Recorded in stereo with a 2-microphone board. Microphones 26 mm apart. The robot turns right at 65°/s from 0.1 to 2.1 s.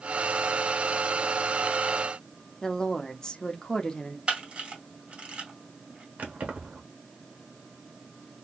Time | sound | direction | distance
2.6 | a woman speaking | 25° left (ahead or behind) | 0.8 m
4.3 | a camera shutter | 50° right (ahead or behind) | 1.7 m
6.2 | keys jangling | 70° right (ahead or behind) | 1.1 m